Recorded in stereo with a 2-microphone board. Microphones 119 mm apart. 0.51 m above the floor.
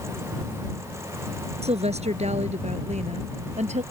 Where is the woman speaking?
65° right (ahead or behind); by 3.8 s 75° right (ahead or behind).